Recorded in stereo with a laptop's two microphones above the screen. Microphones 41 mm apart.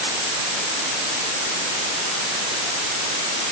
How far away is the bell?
No bell in this recording.